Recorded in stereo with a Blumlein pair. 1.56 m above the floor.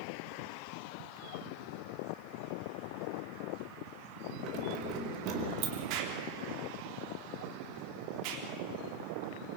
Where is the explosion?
45° right, 3.5 m.